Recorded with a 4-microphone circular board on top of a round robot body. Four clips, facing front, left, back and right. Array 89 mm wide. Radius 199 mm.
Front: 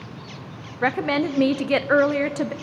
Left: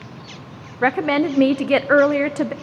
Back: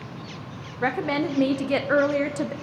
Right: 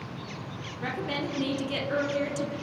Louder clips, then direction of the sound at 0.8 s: Left 14 dB, front 3 dB; 75° left.